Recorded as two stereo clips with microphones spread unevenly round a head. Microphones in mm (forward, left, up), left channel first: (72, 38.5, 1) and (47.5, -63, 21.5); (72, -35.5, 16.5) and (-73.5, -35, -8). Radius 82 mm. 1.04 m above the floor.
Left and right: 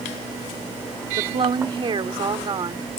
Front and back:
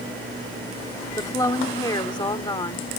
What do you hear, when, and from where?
1.2 s a woman speaking: 70° right; by 2.9 s 60° right